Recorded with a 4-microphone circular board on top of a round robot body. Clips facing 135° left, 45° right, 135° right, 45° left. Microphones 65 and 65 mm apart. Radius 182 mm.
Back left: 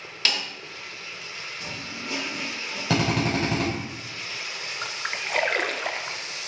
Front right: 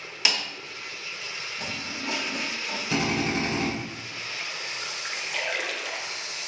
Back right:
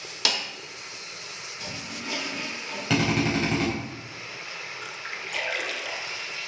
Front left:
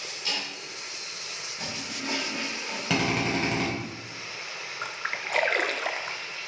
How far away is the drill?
About 4.5 m.